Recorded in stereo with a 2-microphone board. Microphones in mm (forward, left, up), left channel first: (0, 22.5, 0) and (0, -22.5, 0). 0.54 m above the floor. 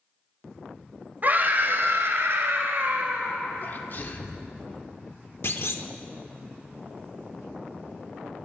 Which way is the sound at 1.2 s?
40° right (ahead or behind).